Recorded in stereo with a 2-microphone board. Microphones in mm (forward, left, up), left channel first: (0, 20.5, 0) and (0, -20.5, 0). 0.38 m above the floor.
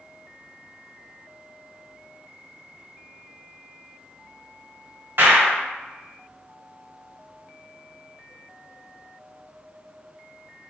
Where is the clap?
55° right (ahead or behind), 1.4 m.